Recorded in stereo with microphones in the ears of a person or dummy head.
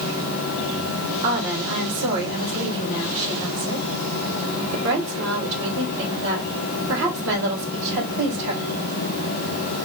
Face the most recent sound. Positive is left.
turn(degrees=-60)  # may be behind; listen again after turning